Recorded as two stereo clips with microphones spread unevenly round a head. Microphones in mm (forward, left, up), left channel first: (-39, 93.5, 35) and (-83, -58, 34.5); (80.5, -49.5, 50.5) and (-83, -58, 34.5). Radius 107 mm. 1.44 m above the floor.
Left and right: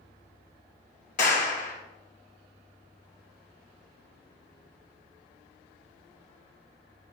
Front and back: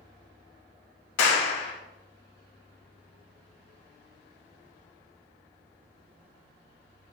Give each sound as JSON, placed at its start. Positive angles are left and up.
{"t": 1.2, "sound": "a clap", "azimuth_deg": 20, "distance_m": 1.3}